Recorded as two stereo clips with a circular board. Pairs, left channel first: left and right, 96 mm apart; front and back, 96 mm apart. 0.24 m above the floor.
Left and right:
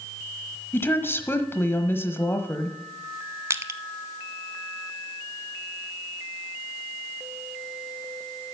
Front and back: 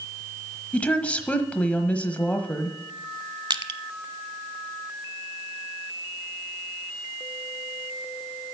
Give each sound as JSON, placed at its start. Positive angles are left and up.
{"t": 0.7, "sound": "a woman speaking", "azimuth_deg": 60, "distance_m": 1.1}
{"t": 3.5, "sound": "crushing", "azimuth_deg": -150, "distance_m": 0.6}